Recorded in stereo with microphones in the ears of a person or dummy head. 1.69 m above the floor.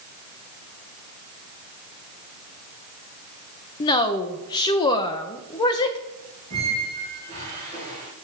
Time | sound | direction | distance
3.8 | a woman speaking | 20° left (ahead or behind) | 0.6 m
6.5 | a squeak | 30° right (ahead or behind) | 3 m